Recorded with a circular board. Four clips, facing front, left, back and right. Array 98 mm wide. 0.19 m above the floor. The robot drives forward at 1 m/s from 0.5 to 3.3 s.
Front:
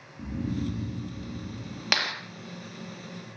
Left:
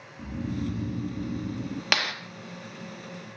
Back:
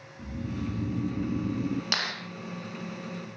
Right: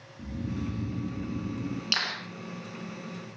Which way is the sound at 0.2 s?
25° left.